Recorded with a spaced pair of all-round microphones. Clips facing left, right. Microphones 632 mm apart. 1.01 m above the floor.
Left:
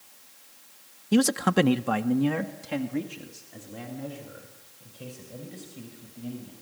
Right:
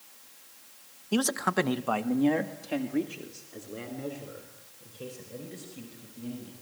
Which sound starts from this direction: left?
A man speaking, at 1.1 s.